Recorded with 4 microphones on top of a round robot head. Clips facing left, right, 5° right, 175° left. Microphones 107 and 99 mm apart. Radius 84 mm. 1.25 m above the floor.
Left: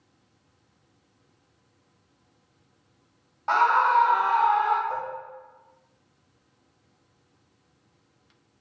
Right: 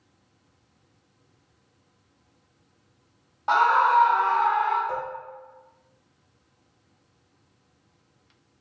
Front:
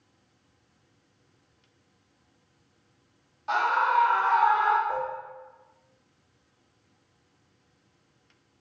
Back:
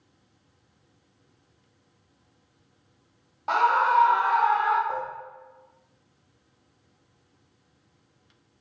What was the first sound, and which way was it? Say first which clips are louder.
A scream: right 1 dB, back 3 dB; 165° right.